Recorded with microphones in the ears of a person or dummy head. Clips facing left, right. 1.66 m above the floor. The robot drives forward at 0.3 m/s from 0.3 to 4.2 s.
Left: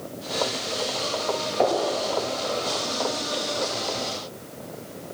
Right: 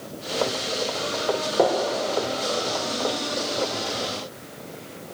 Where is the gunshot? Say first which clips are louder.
Right 1 dB; 65° right (ahead or behind), 7.5 m; by 3.7 s 60° right (ahead or behind), 7.5 m.